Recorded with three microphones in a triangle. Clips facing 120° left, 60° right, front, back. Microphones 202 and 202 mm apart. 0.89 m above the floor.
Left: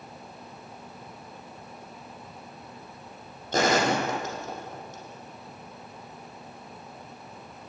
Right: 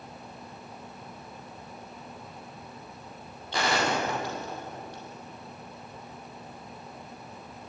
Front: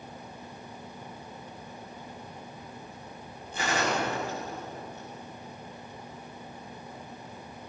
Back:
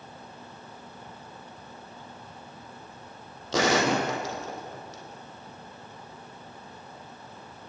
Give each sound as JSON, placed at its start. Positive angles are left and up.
{"t": 3.5, "sound": "a gunshot", "azimuth_deg": 165, "distance_m": 5.0}